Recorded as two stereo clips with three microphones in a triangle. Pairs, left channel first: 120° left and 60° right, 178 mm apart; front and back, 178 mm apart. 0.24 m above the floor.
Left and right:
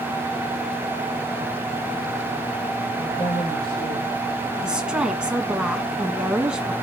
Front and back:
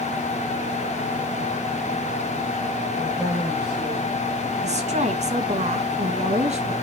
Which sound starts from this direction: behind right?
A woman speaking, at 4.6 s.